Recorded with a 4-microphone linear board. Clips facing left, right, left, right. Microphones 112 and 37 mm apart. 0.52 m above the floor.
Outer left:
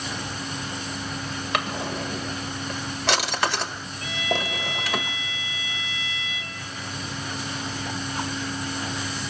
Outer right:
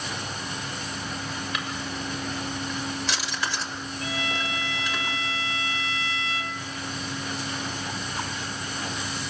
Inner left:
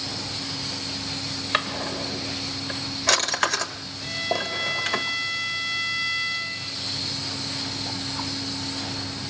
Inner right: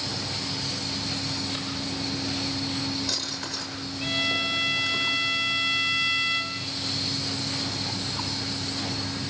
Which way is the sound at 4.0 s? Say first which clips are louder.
Outer left 4 dB, inner right 1 dB; 40° right (ahead or behind).